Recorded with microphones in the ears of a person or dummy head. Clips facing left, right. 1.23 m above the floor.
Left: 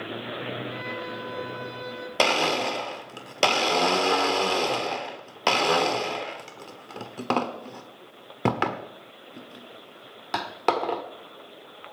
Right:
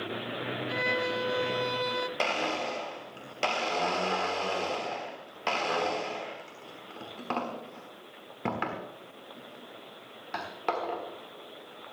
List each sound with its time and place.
0.7 s a violin: 75° right (ahead or behind), 1.2 m
2.2 s a blender: 50° left (ahead or behind), 1.2 m